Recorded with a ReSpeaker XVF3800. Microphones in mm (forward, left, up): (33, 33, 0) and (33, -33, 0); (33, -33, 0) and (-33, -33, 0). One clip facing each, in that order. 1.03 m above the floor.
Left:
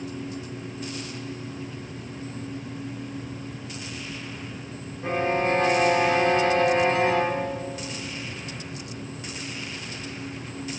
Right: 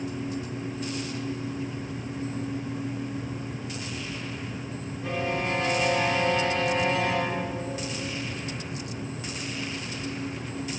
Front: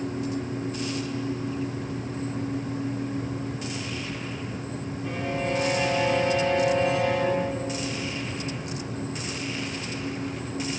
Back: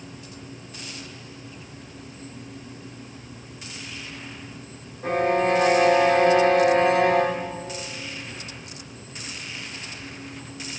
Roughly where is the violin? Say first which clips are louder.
Left 5 dB, back 9 dB; behind left.